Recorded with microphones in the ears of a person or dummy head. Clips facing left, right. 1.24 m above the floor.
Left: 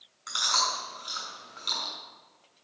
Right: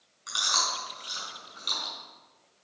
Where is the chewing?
10° right (ahead or behind), 6 m.